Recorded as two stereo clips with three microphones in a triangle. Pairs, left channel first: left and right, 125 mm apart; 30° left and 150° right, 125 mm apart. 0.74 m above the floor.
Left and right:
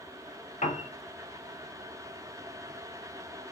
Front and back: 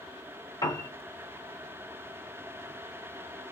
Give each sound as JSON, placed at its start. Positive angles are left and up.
{"t": 0.6, "sound": "a piano", "azimuth_deg": 85, "distance_m": 1.1}